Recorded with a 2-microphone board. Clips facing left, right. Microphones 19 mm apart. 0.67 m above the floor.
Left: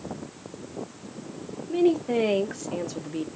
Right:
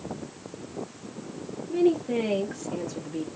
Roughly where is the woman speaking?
Left.